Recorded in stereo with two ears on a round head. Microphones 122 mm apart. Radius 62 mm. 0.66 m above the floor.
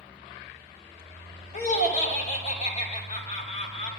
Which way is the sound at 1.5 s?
55° left (ahead or behind).